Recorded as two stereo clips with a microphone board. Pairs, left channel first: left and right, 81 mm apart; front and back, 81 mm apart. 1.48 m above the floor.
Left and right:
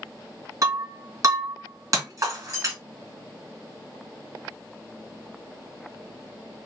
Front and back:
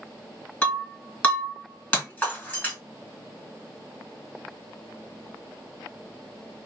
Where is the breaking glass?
70° right, 1.7 m.